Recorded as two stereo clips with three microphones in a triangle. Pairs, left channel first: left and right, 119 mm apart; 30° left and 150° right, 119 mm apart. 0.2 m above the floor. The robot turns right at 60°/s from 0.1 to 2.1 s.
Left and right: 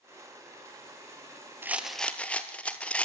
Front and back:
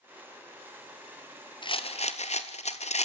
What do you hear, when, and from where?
1.6 s a rattle: 20° right, 1.3 m; by 3.0 s 10° left, 1.3 m